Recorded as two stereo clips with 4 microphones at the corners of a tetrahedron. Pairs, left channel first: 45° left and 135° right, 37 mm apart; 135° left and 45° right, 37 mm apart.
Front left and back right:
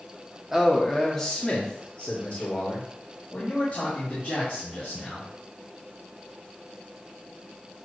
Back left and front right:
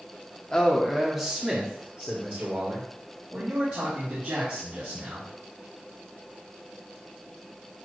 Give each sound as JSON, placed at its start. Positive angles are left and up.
{"t": 0.5, "sound": "a man speaking", "azimuth_deg": 165, "distance_m": 1.2}